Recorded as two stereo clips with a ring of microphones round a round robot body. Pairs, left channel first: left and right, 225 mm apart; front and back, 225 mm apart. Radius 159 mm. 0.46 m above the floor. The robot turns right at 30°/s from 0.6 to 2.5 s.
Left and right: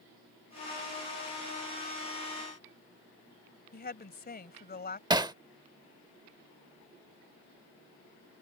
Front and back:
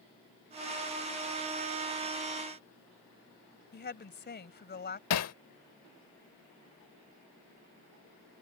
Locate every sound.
3.7 s a woman speaking: 45° left
5.1 s hammering: 15° right